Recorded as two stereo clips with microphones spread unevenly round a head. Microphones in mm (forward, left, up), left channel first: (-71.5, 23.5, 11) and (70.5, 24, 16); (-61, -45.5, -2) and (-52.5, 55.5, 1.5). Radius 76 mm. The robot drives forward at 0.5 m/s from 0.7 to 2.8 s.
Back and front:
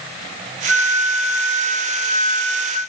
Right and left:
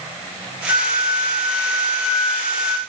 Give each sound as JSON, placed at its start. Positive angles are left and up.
{"t": 0.7, "sound": "a flute", "azimuth_deg": -80, "distance_m": 9.5}